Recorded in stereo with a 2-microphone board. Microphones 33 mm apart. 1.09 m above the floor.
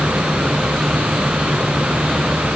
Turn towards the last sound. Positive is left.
No sound to turn to.